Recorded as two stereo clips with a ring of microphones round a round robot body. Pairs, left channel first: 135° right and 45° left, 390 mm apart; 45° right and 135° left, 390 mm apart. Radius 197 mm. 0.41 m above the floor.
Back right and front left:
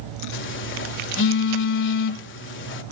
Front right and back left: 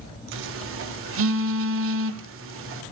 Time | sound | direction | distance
0.3 | a phone buzzing | 175° left | 1.7 m